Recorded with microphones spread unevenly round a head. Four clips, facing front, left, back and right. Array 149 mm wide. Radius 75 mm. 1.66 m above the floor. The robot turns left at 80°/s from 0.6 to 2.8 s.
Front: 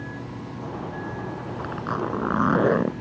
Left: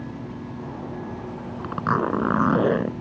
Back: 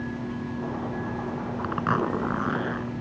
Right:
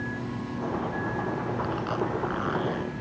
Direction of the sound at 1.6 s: 125° left.